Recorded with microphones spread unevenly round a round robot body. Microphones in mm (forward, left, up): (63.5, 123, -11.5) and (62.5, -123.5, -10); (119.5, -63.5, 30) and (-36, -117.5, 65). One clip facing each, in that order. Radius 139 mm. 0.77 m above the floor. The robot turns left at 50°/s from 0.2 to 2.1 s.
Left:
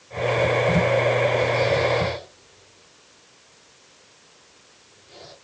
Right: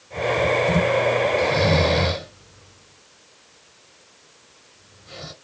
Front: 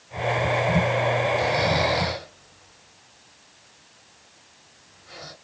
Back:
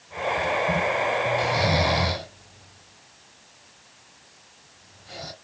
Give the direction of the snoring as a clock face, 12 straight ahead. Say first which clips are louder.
Right 1 dB, front 1 dB; 2 o'clock.